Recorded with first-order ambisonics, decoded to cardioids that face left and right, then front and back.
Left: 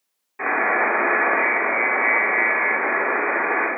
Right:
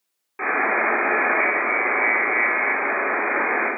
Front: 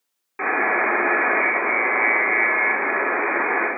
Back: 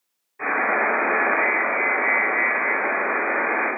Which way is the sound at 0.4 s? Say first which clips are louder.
Left 1 dB, front 1 dB; 20° right.